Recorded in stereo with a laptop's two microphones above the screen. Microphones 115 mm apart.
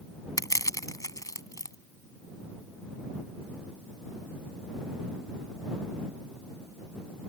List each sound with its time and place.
0.4 s crushing: 30° left (ahead or behind)